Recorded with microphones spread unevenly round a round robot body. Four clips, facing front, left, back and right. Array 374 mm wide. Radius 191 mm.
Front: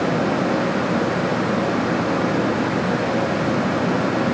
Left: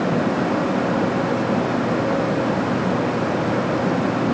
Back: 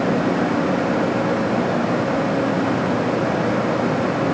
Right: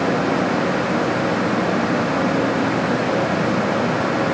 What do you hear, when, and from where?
Only background noise.